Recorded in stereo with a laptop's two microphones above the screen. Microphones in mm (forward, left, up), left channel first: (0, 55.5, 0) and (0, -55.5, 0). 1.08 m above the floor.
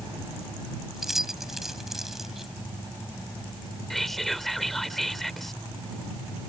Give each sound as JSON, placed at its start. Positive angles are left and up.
{"t": 0.9, "sound": "keys jangling", "side_deg": -5}
{"t": 3.9, "sound": "whispering", "side_deg": 0}